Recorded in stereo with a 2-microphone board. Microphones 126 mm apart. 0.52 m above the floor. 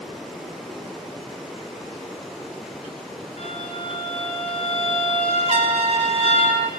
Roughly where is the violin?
Left.